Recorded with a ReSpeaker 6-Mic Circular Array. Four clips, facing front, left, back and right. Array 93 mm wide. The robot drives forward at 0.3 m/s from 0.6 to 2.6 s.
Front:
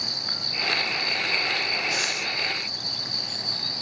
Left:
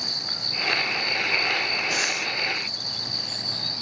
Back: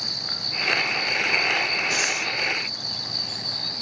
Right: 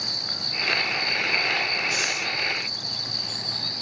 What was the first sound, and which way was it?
Breathing, 135° left.